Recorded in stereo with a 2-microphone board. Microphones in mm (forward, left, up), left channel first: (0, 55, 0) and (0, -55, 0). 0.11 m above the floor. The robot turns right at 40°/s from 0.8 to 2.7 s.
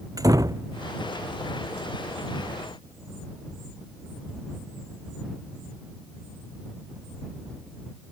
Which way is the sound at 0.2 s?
30° right (ahead or behind).